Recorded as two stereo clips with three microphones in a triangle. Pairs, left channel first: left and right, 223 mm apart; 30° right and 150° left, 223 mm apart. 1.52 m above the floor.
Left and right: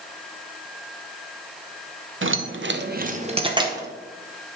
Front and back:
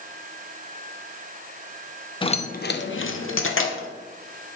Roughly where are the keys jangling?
Right.